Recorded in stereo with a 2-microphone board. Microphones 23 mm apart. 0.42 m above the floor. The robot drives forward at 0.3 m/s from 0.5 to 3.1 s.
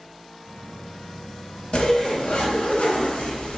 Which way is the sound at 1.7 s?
45° left (ahead or behind).